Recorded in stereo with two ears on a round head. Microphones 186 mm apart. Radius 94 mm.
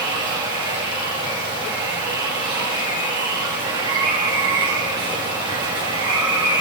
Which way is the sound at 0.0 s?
20° right (ahead or behind).